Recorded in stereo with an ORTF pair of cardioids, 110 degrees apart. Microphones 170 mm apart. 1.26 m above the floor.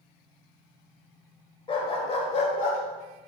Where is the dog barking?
30° left, 2.5 m; by 2.8 s 60° left, 2 m.